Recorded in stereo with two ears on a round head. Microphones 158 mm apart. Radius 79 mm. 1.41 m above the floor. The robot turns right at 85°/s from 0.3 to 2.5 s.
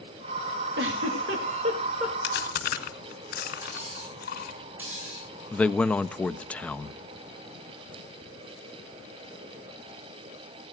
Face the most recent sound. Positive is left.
turn(degrees=10)  # may be behind; listen again after turning